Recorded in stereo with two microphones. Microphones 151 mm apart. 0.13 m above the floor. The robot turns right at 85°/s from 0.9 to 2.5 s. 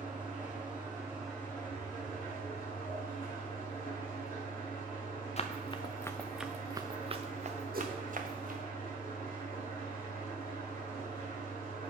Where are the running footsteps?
45° left (ahead or behind), 0.7 m; by 8.6 s 65° right (ahead or behind), 1.2 m.